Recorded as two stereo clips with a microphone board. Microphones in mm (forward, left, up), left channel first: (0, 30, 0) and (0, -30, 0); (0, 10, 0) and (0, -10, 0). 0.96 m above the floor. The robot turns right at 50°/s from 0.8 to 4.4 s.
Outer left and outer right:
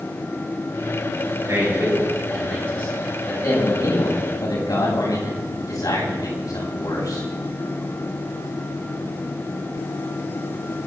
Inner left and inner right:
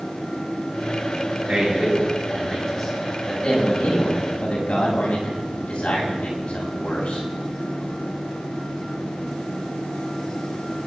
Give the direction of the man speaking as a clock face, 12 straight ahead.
1 o'clock.